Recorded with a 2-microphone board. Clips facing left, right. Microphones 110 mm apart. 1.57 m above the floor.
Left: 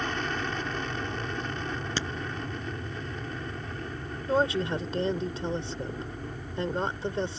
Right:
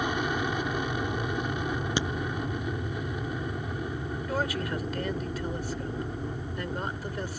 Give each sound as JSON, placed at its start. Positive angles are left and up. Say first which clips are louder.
{"t": 0.0, "sound": "an aircraft", "louder": "right 3 dB", "side_deg": -10}
{"t": 2.0, "sound": "a crack", "louder": "right 4 dB", "side_deg": -15}
{"t": 4.3, "sound": "a woman speaking", "louder": "left 6 dB", "side_deg": 25}